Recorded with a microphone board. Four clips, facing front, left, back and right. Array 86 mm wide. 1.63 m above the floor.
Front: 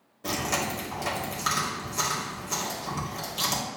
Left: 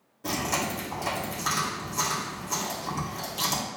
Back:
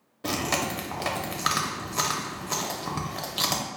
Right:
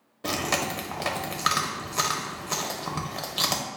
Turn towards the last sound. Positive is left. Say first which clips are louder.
# right 1 dB, back 1 dB
turn(degrees=-125)